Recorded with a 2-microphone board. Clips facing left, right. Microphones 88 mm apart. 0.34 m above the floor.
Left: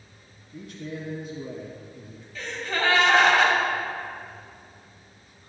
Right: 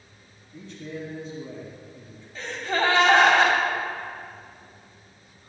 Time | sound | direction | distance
0.5 | a man speaking | 10° left (ahead or behind) | 2.5 m
2.4 | a gasp | 30° right (ahead or behind) | 2 m